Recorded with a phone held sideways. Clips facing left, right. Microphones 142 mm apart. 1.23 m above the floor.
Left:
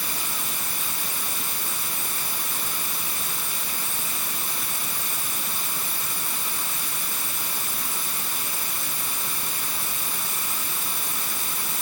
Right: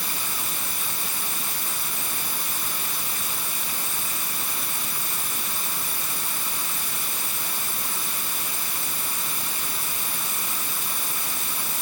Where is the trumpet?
I don't hear a trumpet.